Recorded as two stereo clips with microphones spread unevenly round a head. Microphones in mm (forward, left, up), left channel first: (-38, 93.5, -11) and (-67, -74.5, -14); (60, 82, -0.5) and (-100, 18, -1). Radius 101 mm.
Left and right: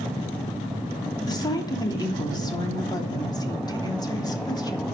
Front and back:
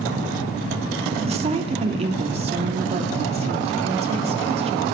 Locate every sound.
1.3 s a woman speaking: 150° left, 3 m